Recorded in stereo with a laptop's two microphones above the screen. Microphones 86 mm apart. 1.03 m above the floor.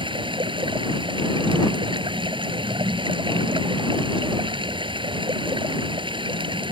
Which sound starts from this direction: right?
Running water, at 0.0 s.